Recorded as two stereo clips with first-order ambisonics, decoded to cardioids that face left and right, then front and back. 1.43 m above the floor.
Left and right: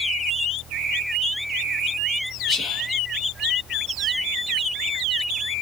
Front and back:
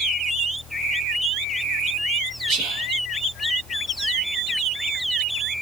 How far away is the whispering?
About 1.2 m.